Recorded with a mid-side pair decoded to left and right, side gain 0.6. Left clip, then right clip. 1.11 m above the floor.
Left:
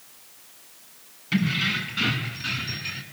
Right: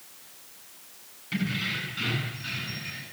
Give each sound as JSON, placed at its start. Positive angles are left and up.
{"t": 1.3, "sound": "keys jangling", "azimuth_deg": 35, "distance_m": 8.0}